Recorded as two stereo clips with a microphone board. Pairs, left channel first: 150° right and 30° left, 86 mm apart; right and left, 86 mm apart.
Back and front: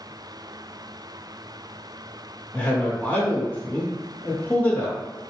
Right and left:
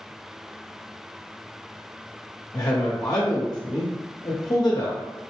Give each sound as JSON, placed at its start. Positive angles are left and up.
{"t": 2.5, "sound": "a man speaking", "azimuth_deg": -90, "distance_m": 0.8}